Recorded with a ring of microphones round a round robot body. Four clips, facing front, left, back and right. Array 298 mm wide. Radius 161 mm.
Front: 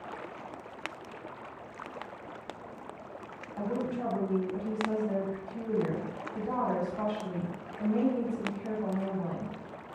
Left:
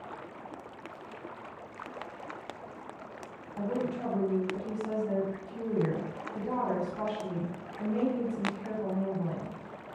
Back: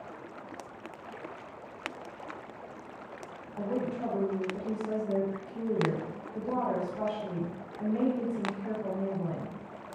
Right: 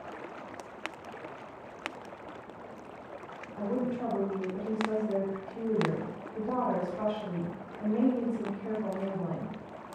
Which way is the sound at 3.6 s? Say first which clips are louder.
Right 1 dB, even; 125° left.